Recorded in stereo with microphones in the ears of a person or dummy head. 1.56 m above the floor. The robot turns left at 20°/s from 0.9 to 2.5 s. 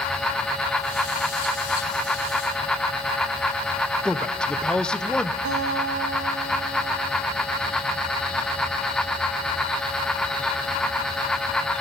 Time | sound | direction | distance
4.0 | a man speaking | 10° left (ahead or behind) | 0.7 m
5.5 | a guitar | 65° right (ahead or behind) | 1.3 m